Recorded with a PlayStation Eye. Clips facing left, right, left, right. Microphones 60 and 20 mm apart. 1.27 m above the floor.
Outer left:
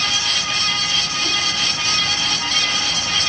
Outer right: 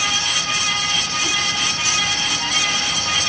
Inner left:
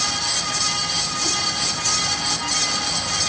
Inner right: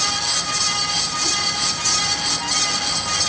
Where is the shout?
I don't hear a shout.